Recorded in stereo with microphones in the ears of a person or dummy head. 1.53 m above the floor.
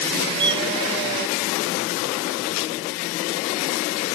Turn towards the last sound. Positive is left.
turn(degrees=-25)  # may be behind; listen again after turning